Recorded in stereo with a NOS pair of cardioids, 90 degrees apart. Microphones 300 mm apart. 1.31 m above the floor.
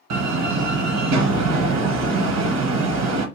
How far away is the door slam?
About 1.0 m.